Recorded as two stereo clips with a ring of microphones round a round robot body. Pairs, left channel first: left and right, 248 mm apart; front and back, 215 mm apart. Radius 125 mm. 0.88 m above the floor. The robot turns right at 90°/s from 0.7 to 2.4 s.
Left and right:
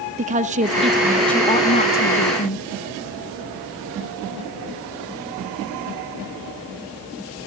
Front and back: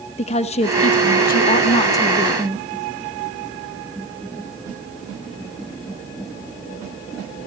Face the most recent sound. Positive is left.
turn(degrees=105)